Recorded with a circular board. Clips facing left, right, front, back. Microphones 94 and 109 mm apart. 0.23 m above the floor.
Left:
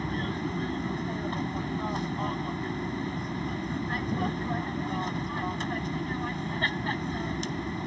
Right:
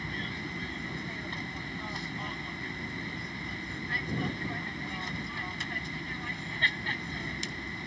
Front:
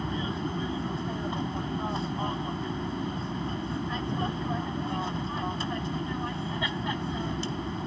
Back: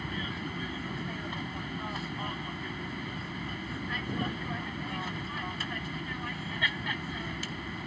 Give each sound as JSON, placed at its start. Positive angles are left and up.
{"t": 0.0, "sound": "an aircraft", "azimuth_deg": 50}